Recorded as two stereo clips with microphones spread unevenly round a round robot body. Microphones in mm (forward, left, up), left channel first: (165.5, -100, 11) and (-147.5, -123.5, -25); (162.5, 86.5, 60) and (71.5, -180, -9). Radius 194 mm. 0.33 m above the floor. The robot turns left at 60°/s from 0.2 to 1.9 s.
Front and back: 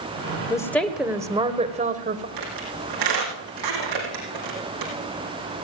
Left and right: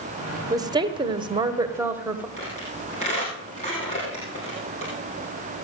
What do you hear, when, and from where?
0.5 s a woman speaking: 75° right, 1.0 m; by 2.3 s 160° right, 1.0 m
2.4 s a squeak: 145° left, 3.5 m